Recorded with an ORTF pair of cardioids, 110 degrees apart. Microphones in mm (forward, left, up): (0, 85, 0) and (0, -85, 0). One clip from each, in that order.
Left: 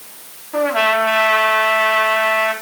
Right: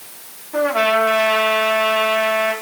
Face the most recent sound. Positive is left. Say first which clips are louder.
# left 1 dB
turn(degrees=10)